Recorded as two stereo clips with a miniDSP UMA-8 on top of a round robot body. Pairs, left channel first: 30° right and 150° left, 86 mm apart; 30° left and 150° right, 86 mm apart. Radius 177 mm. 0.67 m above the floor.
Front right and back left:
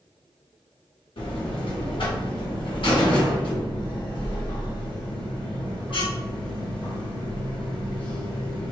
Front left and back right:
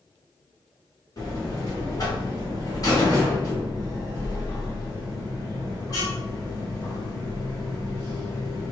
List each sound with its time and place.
1.2 s a buzzer: 15° right, 1.6 m